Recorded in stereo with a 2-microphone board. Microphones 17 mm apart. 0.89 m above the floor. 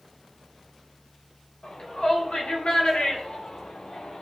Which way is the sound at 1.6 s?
80° left.